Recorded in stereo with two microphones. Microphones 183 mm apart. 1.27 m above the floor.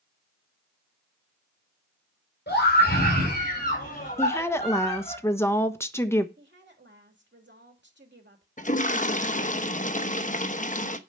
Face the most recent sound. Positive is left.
turn(degrees=45)  # may be behind; listen again after turning